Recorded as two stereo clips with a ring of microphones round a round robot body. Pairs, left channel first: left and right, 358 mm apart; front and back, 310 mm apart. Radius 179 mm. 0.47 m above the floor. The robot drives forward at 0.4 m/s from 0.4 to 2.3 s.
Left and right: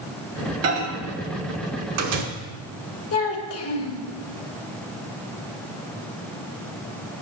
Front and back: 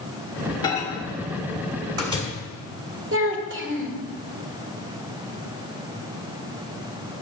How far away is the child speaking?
About 1.4 m.